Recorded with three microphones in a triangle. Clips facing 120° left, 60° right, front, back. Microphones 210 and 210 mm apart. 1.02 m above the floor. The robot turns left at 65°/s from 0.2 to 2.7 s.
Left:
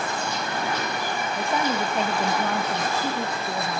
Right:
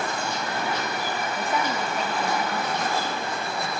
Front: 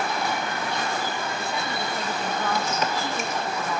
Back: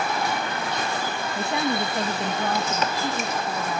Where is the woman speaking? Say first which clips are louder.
Left 3 dB, back 5 dB; 165° right, 1.3 m; by 3.8 s 105° left, 1.3 m.